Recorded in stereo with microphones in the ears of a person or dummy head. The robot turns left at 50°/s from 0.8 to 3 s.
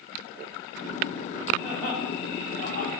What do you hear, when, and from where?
1.6 s laughter: 5° right (ahead or behind), 3.5 m; by 2.9 s 60° left (ahead or behind), 3.5 m